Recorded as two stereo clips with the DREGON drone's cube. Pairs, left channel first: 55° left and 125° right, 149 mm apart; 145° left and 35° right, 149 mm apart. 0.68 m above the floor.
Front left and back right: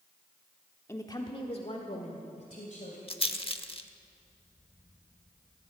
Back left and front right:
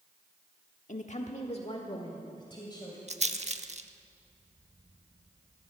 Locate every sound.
0.9 s a woman speaking: 125° left, 1.1 m; by 3.0 s 85° left, 2.5 m
3.1 s a rattle: 5° left, 0.7 m